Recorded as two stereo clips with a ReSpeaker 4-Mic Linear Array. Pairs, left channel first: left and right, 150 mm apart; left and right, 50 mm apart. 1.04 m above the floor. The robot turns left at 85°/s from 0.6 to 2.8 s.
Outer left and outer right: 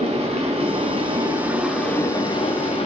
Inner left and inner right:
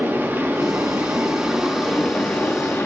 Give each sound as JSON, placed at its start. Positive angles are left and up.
{"t": 0.0, "sound": "running water", "azimuth_deg": -85, "distance_m": 0.7}